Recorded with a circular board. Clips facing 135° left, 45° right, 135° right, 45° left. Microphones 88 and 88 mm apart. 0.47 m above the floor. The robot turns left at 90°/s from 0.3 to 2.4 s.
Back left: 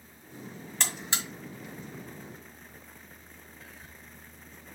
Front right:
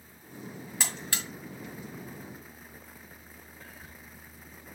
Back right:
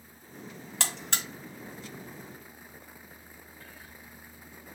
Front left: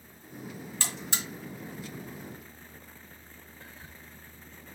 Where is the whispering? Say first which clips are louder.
Front right 2 dB, front left 2 dB; 35° left, 0.9 m.